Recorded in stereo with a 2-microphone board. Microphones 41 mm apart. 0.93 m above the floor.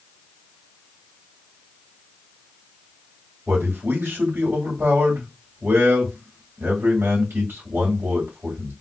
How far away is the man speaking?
About 2.5 m.